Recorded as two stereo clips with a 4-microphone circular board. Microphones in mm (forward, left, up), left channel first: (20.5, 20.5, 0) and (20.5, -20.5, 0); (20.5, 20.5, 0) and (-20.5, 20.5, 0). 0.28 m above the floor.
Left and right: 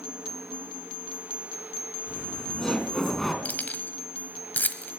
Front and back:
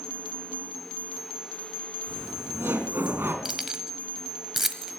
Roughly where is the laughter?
Behind left.